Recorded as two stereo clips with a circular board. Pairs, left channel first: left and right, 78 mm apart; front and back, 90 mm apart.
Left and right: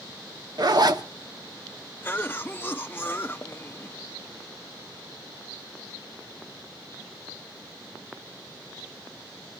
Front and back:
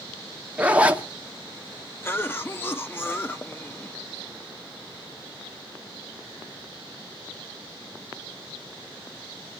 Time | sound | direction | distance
0.6 | a zipper | 105° right | 1.2 m
2.0 | a cough | 45° left | 0.7 m